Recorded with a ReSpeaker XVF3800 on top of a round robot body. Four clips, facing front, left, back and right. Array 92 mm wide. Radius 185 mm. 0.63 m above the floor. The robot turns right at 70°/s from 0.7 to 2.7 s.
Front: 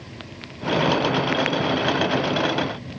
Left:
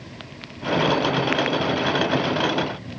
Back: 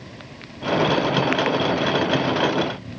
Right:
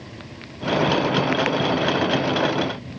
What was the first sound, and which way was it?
Only background noise.